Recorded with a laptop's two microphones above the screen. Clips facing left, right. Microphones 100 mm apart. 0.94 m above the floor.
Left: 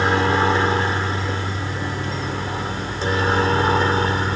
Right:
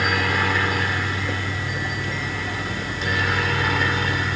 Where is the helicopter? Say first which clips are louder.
Left 5 dB; 30° left (ahead or behind); by 4.4 s 35° left (ahead or behind).